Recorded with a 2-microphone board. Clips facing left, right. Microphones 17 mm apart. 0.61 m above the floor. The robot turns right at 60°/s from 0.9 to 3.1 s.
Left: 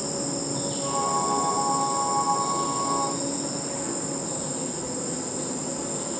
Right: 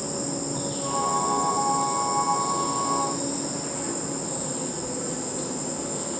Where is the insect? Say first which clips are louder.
Even; 145° left, 1.0 m; by 6.2 s 85° right, 1.0 m.